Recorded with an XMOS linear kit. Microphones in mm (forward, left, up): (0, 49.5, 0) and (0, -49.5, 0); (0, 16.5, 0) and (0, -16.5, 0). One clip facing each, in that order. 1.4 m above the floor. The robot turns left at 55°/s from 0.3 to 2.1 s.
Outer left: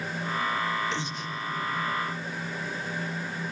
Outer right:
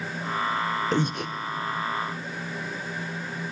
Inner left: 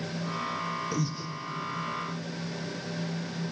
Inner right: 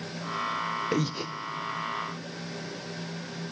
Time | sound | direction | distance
0.9 | breathing | 45° right (ahead or behind) | 0.8 m